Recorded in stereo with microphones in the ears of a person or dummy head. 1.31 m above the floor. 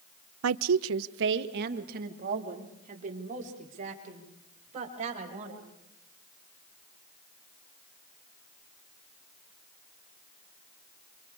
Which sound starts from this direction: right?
A woman speaking, at 0.4 s.